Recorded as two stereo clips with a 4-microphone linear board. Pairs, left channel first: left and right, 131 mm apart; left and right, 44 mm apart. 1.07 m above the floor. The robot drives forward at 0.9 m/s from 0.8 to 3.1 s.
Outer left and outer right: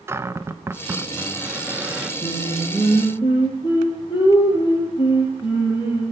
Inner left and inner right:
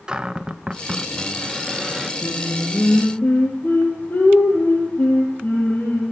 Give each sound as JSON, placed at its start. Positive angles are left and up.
{"t": 0.1, "sound": "a cupboard door", "side_deg": -20, "distance_m": 0.6}
{"t": 2.2, "sound": "singing", "side_deg": 50, "distance_m": 4.0}